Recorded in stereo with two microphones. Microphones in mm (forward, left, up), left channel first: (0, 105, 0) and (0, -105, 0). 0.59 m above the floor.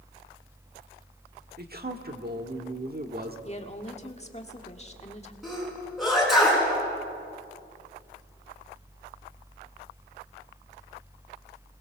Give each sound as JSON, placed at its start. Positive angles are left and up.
{"t": 1.6, "sound": "a man speaking", "side_deg": -50, "distance_m": 1.6}
{"t": 3.5, "sound": "a woman speaking", "side_deg": 30, "distance_m": 1.7}
{"t": 5.4, "sound": "a sneeze", "side_deg": 0, "distance_m": 8.0}